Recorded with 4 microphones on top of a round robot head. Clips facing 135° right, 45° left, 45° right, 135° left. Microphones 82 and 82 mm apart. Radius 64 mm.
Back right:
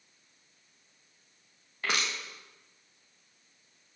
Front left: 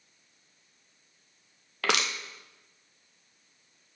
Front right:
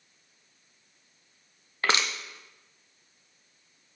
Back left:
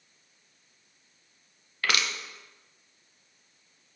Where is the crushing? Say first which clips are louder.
Front left 4 dB, front right 2 dB; 20° left, 0.8 m.